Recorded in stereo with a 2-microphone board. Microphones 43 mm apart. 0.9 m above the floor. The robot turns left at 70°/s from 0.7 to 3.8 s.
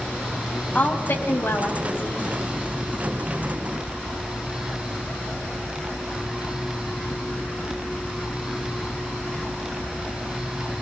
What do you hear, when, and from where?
0.8 s a woman speaking: 145° left, 5 m; by 2.3 s 40° left, 5 m